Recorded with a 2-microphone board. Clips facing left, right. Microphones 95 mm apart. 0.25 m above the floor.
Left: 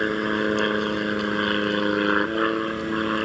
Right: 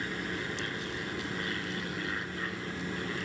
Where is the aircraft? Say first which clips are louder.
Left 13 dB; 60° left (ahead or behind).